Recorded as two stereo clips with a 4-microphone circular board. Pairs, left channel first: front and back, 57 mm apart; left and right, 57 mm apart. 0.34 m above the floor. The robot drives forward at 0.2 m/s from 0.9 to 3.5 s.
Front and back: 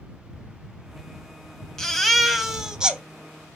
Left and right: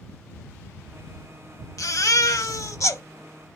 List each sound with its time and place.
1.8 s a baby crying: 80° left, 0.5 m; by 3.0 s 110° left, 0.6 m